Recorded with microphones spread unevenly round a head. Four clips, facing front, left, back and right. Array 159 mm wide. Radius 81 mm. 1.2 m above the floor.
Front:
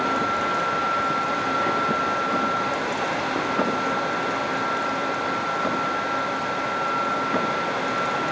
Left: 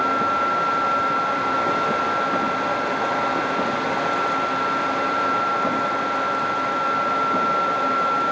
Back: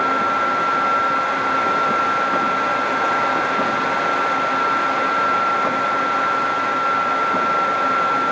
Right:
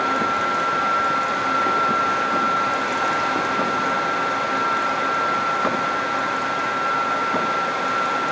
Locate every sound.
Only background noise.